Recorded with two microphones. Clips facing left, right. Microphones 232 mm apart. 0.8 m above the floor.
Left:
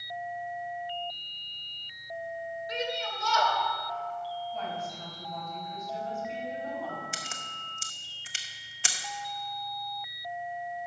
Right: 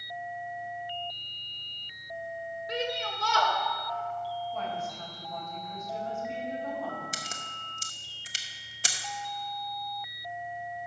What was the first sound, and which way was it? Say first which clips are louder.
A shout: right 2 dB; 65° right (ahead or behind).